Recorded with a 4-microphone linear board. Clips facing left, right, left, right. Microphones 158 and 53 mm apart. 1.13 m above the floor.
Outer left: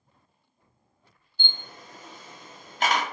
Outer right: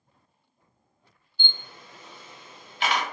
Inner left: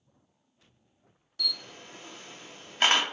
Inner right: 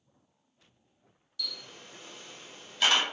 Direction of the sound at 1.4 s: 45° left (ahead or behind).